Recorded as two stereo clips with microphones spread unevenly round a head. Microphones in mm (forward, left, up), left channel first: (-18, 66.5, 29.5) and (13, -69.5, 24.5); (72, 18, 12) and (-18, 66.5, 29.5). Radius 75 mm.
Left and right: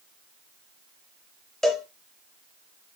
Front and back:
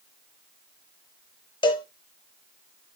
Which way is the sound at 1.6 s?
15° left.